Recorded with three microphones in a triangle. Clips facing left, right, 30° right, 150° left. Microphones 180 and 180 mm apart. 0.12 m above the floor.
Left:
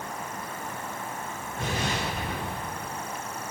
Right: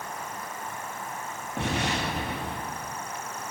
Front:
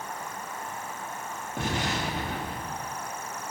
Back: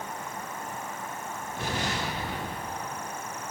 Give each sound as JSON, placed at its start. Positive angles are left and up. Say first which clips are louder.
{"t": 1.6, "sound": "an explosion", "louder": "right 2 dB, front 2 dB", "azimuth_deg": -70, "distance_m": 6.5}